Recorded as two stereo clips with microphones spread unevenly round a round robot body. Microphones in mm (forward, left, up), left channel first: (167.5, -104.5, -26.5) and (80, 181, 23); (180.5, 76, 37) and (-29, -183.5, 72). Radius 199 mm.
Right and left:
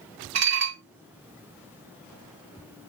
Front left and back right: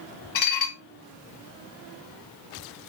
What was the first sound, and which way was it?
Dishes clattering, 75° left.